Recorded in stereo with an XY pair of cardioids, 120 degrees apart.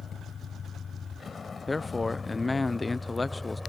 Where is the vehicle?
40° left; by 3.7 s 5° left.